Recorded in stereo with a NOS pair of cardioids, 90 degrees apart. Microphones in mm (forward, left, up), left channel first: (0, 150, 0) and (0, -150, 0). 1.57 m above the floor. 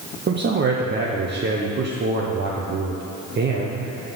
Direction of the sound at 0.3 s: 35° right.